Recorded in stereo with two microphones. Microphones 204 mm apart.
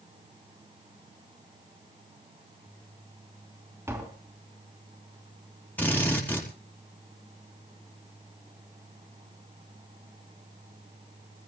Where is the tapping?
15° right (ahead or behind), 3 m.